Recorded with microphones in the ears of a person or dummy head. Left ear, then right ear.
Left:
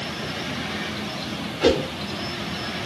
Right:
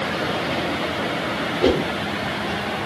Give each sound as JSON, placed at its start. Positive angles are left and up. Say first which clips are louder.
{"t": 1.6, "sound": "a whoosh", "louder": "even", "side_deg": -5, "distance_m": 0.8}